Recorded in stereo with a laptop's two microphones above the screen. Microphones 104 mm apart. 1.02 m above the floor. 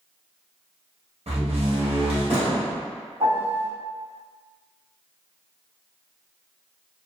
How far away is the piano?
About 1.8 m.